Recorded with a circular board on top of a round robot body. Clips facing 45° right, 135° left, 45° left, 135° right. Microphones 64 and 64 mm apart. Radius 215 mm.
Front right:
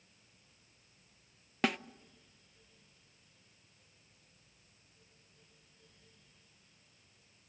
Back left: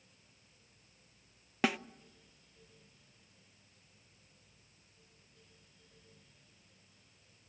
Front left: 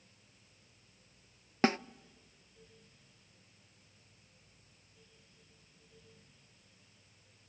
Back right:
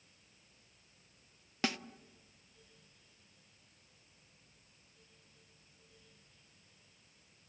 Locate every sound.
1.6 s a snare drum: 50° left, 0.8 m